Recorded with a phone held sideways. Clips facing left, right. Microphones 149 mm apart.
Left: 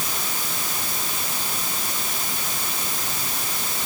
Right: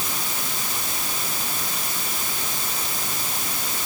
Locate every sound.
Only background noise.